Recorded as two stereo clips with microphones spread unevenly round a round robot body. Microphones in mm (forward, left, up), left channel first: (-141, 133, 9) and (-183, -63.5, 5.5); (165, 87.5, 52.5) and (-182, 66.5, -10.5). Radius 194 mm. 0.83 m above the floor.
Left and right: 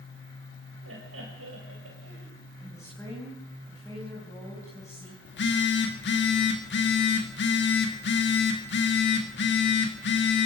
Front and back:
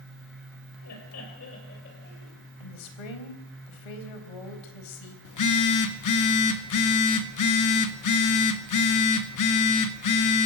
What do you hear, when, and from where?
0.8 s laughter: 50° right, 5 m; by 2.3 s 65° right, 5 m
2.6 s a woman speaking: 5° right, 4 m
5.2 s a phone buzzing: 40° left, 1.8 m